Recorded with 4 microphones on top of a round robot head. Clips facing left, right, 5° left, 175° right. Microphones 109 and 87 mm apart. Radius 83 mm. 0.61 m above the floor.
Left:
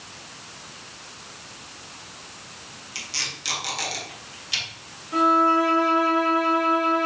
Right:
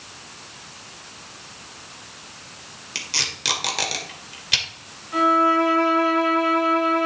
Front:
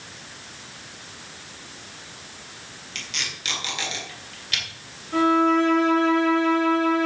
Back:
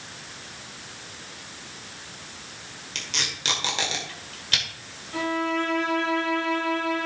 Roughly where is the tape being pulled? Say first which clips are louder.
Right 4 dB, back 1 dB; behind right.